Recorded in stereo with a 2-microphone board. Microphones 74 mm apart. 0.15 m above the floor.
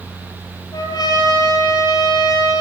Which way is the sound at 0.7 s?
65° left (ahead or behind).